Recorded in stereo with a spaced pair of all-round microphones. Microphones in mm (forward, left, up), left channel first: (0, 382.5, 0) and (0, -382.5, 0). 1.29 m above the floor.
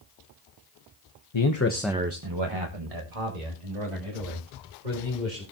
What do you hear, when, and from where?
1.3 s a man speaking: 40° left (ahead or behind), 1.0 m; by 5.4 s 70° right (ahead or behind), 5 m